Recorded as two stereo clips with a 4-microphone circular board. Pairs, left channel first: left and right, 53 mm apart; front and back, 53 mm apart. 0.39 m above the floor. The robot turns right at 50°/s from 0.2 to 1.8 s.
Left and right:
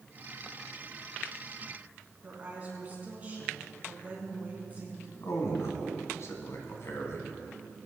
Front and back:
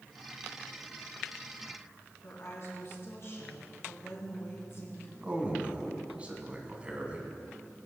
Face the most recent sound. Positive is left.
turn(degrees=115)